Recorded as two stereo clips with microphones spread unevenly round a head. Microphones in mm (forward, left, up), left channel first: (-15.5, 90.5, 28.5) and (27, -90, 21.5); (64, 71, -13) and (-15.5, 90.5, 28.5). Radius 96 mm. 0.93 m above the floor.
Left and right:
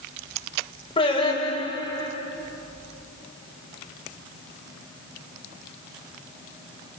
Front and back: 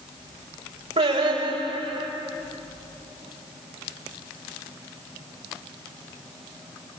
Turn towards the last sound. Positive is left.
turn(degrees=170)